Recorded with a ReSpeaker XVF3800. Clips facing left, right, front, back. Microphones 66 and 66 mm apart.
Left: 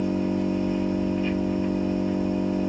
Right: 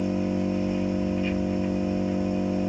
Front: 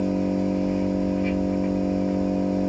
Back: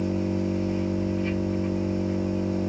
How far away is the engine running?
About 1.2 m.